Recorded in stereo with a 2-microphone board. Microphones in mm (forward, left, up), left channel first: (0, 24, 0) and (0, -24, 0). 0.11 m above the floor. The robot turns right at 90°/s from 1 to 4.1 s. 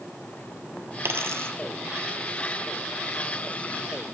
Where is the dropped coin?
55° right (ahead or behind), 1.0 m.